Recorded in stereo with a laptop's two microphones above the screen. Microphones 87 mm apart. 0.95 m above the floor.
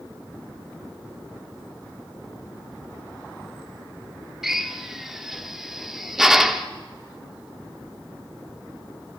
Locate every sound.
4.4 s a drill: 5° right (ahead or behind), 1.2 m